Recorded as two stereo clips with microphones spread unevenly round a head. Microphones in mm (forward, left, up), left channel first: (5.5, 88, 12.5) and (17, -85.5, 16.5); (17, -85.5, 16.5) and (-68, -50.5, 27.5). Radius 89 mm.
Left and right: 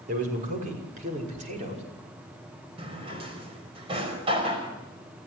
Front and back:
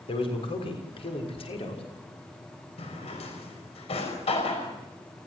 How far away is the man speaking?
About 6.5 m.